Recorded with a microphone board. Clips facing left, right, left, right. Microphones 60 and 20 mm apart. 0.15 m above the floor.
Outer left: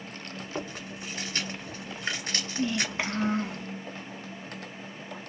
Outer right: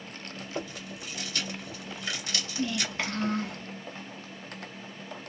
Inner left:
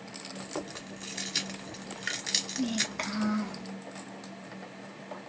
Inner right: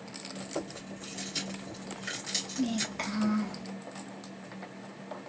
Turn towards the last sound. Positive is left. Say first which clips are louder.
# outer left 2 dB, inner left 1 dB
turn(degrees=15)  # may be behind; listen again after turning